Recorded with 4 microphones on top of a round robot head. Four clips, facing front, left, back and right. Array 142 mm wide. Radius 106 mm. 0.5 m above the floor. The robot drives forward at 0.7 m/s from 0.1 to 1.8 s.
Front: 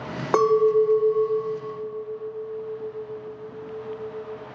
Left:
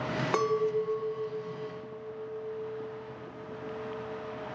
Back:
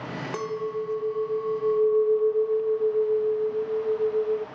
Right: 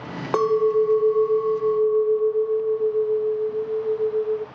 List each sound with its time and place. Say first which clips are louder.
0.3 s a clink: right 10 dB, front 13 dB; 30° right, 1.0 m; by 4.5 s 115° right, 0.6 m